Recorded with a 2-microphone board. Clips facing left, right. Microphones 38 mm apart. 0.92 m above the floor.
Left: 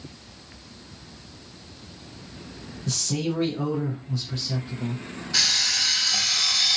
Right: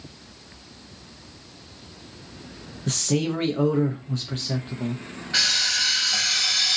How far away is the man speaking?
About 0.5 m.